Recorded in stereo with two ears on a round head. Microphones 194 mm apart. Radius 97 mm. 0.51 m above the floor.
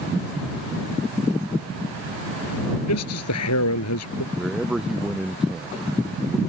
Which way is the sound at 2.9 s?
85° left.